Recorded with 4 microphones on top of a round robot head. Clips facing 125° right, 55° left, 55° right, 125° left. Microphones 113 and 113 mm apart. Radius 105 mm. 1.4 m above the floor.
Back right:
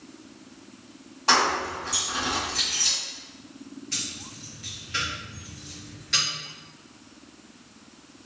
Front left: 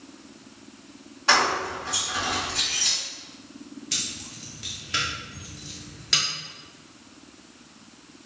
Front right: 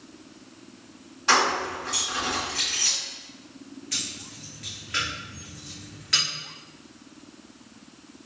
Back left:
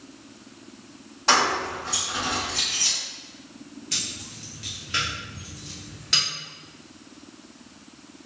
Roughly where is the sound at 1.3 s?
Behind.